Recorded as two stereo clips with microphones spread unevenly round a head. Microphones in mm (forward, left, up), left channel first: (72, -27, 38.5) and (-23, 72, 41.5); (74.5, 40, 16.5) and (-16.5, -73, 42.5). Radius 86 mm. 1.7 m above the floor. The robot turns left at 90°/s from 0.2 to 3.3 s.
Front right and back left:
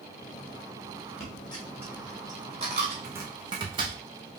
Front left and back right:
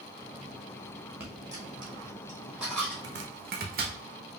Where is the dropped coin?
70° right, 1.2 m; by 2.9 s 135° left, 1.2 m.